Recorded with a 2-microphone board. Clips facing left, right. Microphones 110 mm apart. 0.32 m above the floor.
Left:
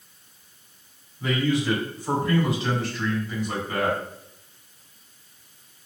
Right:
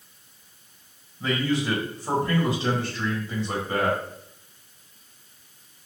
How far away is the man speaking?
About 1.9 m.